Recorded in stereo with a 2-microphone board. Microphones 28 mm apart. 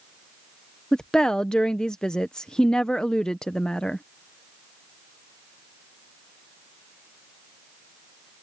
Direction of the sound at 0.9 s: 25° left (ahead or behind).